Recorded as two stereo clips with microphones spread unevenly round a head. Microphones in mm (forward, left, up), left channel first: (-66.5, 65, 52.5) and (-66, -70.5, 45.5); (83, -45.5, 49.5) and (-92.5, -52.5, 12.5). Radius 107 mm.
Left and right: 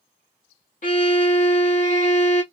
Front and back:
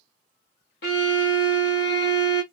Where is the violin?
45° left, 1.1 m.